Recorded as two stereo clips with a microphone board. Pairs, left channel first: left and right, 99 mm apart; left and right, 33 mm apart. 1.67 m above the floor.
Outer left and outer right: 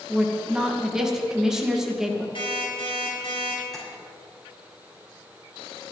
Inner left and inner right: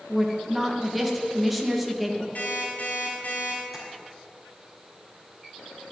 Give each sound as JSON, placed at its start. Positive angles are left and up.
{"t": 0.1, "sound": "a woman speaking", "side_deg": -5, "distance_m": 2.0}
{"t": 2.4, "sound": "an alarm clock", "side_deg": 55, "distance_m": 5.5}
{"t": 3.7, "sound": "tapping", "side_deg": 5, "distance_m": 5.5}